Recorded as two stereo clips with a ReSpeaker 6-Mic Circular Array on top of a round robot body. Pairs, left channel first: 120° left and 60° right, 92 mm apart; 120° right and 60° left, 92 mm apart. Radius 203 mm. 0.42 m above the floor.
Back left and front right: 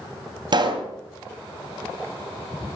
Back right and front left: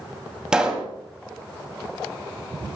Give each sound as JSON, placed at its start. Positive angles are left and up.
{"t": 0.5, "sound": "a pop", "azimuth_deg": -20, "distance_m": 2.5}